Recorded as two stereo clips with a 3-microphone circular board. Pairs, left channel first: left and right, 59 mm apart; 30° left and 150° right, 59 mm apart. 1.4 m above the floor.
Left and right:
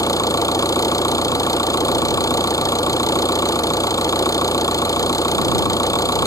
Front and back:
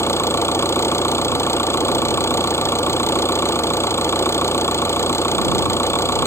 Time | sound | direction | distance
0.0 | an engine running | 75° left | ?